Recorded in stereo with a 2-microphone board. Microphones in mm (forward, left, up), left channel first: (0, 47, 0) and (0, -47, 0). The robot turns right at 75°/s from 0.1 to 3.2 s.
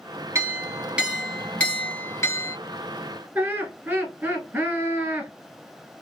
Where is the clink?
70° right, 1.3 m; by 2.6 s 95° left, 1.3 m.